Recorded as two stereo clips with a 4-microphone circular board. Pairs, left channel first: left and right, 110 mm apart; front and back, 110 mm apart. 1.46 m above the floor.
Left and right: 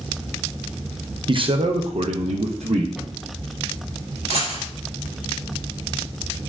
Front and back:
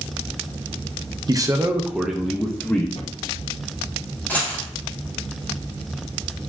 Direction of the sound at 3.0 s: 5° right.